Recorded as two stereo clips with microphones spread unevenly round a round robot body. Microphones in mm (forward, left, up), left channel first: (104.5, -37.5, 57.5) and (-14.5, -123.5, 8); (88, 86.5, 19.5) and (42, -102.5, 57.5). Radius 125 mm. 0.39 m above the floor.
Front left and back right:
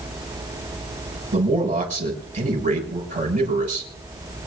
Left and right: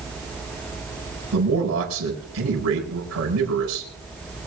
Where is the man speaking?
120° right, 7 m.